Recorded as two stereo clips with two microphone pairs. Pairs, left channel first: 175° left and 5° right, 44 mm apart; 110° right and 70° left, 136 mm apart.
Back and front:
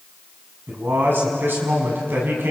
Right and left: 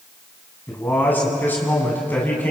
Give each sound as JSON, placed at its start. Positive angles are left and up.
{"t": 0.7, "sound": "a man speaking", "azimuth_deg": -35, "distance_m": 6.0}